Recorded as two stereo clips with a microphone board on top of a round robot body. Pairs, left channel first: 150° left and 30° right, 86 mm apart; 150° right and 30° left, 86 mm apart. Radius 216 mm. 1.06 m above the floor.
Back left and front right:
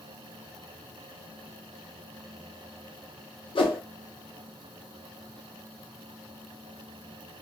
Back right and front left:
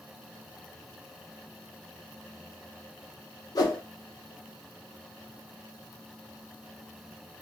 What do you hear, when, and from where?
3.5 s a whoosh: 165° left, 0.7 m